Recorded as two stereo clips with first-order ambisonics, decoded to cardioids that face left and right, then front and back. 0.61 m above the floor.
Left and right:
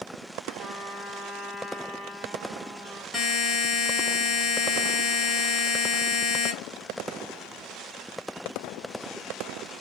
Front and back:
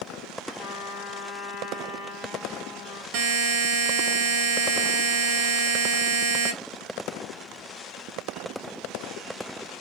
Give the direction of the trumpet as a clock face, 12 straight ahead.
1 o'clock.